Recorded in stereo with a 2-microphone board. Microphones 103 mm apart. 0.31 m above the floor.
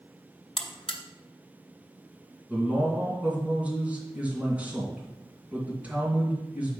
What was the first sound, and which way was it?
A buzzer, 70° left (ahead or behind).